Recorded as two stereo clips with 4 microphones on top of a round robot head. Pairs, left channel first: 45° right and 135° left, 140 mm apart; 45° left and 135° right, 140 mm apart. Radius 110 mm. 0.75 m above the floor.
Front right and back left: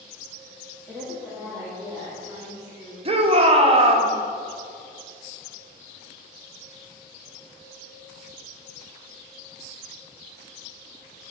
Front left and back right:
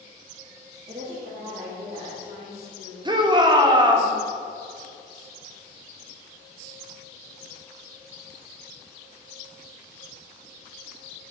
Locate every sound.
0.9 s a woman speaking: 140° right, 1.6 m; by 3.0 s 125° right, 2.5 m
3.0 s a shout: 170° left, 0.9 m